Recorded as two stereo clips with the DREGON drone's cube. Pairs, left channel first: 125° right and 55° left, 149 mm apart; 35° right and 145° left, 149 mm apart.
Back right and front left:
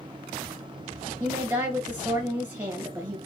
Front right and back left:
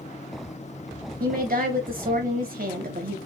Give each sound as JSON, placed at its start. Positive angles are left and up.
{"t": 1.2, "sound": "a woman speaking", "azimuth_deg": 135, "distance_m": 2.5}